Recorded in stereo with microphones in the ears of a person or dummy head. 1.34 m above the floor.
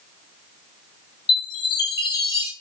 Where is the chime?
25° left (ahead or behind), 0.7 m.